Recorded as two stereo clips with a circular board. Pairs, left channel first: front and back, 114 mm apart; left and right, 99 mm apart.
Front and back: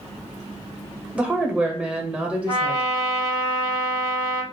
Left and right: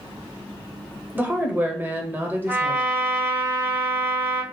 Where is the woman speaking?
120° right, 0.9 m.